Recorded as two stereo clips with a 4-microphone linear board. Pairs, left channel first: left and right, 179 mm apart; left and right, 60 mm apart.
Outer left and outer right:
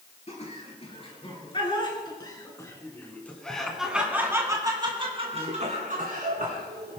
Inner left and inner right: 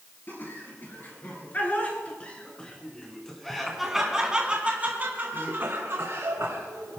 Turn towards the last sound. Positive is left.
turn(degrees=-60)  # may be behind; listen again after turning